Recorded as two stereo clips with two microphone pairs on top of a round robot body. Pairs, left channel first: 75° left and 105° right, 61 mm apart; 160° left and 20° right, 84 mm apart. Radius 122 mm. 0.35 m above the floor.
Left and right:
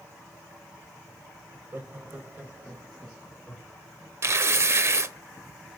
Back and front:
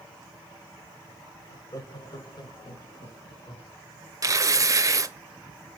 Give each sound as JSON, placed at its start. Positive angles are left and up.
{"t": 1.5, "sound": "laughter", "azimuth_deg": -155, "distance_m": 2.0}
{"t": 4.2, "sound": "tearing paper", "azimuth_deg": -60, "distance_m": 0.9}